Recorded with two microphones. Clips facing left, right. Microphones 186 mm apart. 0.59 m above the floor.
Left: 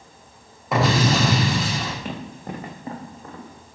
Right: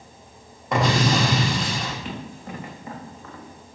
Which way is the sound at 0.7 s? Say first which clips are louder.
Left 1 dB; 5° left (ahead or behind).